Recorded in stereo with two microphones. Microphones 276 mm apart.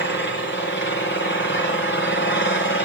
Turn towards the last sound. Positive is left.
turn(degrees=40)  # may be behind; listen again after turning